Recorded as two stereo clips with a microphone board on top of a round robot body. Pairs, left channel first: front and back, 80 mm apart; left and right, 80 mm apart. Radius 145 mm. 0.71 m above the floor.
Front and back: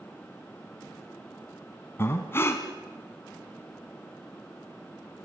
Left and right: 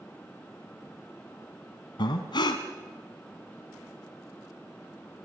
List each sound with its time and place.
2.0 s breathing: 60° left, 1.6 m